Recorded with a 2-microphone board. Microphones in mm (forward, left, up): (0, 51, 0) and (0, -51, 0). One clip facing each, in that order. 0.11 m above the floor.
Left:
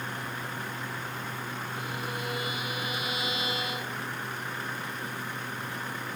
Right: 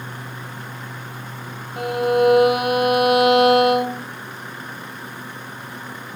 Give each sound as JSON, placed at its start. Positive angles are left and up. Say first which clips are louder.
{"t": 1.8, "sound": "a violin", "louder": "right 22 dB", "side_deg": -70}